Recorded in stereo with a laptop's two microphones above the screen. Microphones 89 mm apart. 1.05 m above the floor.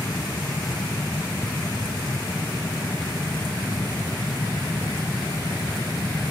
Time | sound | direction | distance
0.0 | a fan | 35° left (ahead or behind) | ?